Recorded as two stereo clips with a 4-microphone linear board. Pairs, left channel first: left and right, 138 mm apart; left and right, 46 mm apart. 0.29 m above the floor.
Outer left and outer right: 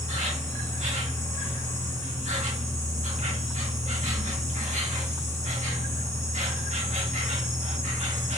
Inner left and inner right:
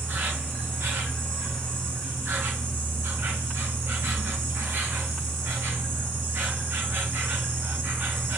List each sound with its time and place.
0.0 s an insect: 55° right (ahead or behind), 1.3 m